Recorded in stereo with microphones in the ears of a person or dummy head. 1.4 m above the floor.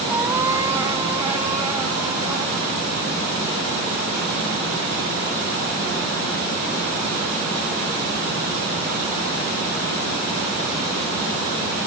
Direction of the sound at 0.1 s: 15° right (ahead or behind).